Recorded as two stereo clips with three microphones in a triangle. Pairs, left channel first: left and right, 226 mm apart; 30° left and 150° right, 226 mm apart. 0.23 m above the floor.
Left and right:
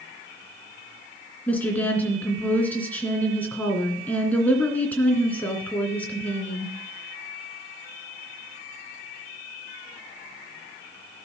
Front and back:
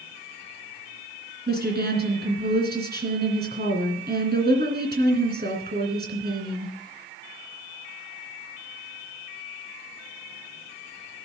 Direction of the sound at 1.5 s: 170° left.